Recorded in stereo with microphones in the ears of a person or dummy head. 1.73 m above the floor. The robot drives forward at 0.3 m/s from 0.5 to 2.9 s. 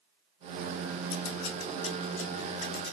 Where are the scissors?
80° left, 0.7 m; by 3.0 s 50° left (ahead or behind), 0.9 m.